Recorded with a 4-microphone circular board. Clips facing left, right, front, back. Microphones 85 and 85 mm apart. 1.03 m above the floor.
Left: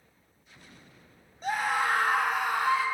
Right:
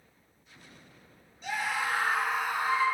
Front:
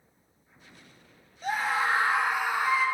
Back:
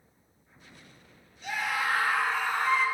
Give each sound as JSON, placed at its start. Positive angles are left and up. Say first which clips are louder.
{"t": 1.4, "sound": "a scream", "louder": "left 4 dB, front 3 dB", "azimuth_deg": 45, "distance_m": 1.8}